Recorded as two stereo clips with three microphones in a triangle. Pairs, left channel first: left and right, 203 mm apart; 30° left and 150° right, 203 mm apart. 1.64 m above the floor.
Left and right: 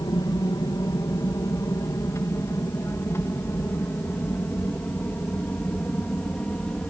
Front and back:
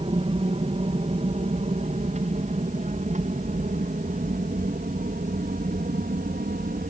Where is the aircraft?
155° left; by 6.9 s 175° left.